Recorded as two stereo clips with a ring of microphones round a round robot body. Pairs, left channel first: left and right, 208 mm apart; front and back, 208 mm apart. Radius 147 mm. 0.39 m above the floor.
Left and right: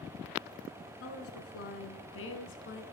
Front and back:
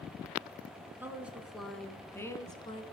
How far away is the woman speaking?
About 5 m.